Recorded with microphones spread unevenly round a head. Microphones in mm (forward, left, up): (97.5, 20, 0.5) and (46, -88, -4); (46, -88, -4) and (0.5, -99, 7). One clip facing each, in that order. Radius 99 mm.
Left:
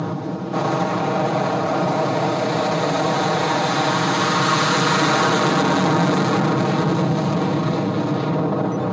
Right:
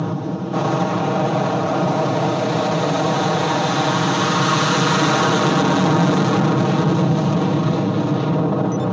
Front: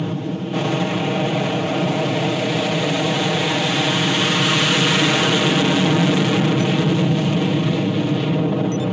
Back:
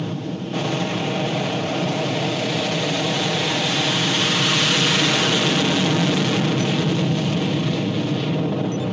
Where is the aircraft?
35° right.